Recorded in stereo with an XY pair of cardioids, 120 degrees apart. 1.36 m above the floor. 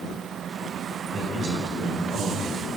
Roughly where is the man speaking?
Ahead right.